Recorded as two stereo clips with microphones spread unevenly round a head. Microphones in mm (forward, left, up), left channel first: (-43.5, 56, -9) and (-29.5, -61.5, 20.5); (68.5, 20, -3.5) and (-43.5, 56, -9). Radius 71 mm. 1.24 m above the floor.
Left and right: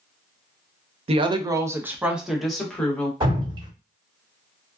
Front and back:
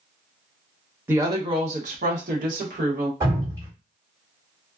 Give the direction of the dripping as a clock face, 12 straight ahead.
4 o'clock.